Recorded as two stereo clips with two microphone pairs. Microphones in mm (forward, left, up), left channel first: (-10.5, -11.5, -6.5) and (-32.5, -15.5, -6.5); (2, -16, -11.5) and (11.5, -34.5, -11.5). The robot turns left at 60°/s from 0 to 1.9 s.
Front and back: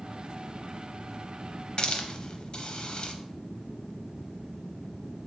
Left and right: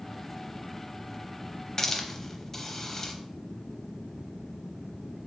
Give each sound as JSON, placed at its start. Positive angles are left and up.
{"t": 1.8, "sound": "a hiss", "azimuth_deg": 55, "distance_m": 0.6}